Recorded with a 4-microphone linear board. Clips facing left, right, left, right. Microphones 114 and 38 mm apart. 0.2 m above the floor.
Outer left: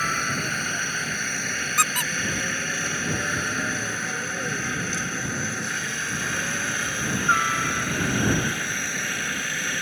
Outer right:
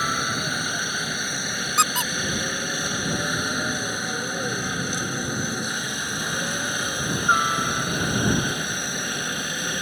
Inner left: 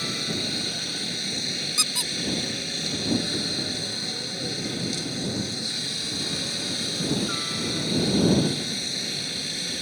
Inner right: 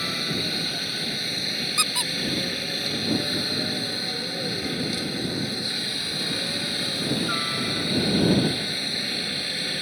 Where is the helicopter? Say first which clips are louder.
Outer right 1 dB, inner right 2 dB; 15° right (ahead or behind); by 9.8 s 20° right (ahead or behind).